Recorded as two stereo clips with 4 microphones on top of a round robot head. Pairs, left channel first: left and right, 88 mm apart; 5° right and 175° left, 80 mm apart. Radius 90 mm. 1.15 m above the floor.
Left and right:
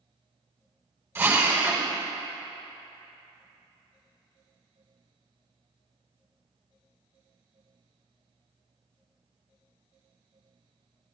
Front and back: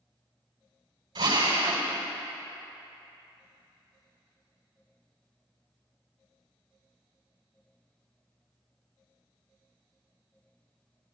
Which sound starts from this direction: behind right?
A drill, at 1.1 s.